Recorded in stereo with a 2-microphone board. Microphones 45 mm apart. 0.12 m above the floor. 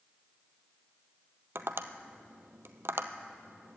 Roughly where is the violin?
No violin in this recording.